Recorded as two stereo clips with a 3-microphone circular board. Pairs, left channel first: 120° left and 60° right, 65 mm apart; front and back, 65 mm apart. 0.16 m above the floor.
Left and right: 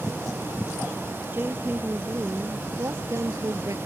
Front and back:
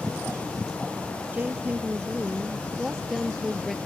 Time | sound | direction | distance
1.3 | a woman speaking | 115° right | ?